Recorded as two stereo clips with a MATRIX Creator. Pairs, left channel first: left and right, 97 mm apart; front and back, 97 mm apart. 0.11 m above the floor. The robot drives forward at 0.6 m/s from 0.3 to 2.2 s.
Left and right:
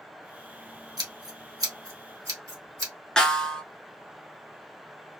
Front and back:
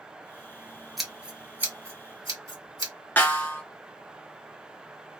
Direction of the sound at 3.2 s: 20° left.